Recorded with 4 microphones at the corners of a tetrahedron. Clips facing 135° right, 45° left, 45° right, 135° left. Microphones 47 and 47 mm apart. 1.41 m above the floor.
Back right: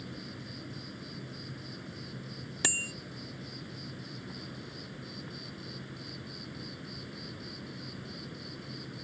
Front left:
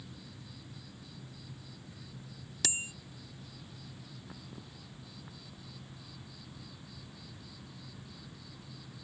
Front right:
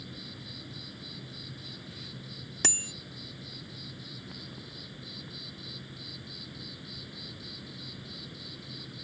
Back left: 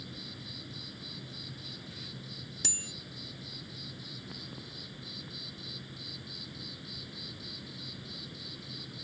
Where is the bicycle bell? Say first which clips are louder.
Back right 5 dB, front right 10 dB; 75° right.